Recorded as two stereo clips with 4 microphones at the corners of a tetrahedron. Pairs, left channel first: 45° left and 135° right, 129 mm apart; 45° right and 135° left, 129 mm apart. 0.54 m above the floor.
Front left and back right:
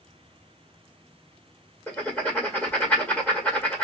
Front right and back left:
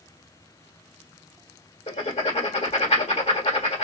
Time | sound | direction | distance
1.9 | writing | 30° right | 1.7 m